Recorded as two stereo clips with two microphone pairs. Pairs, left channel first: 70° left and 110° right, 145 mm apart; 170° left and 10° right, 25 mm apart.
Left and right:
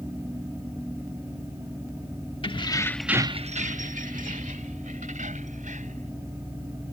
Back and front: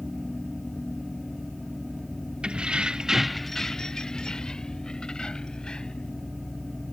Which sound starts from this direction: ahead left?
Keys jangling, at 2.4 s.